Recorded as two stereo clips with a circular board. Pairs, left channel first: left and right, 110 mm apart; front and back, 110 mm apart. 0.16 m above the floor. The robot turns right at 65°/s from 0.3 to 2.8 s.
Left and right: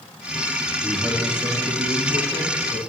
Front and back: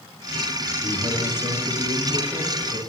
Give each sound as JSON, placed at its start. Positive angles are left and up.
{"t": 0.8, "sound": "a man speaking", "azimuth_deg": 175, "distance_m": 4.0}